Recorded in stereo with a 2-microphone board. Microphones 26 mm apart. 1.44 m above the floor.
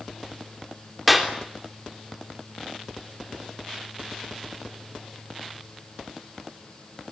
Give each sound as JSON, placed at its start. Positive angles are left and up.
{"t": 1.1, "sound": "a clap", "side_deg": 0, "distance_m": 3.5}